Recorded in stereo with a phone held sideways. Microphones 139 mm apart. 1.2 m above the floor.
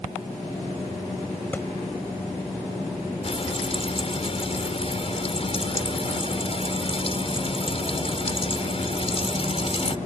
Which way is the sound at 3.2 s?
45° left (ahead or behind).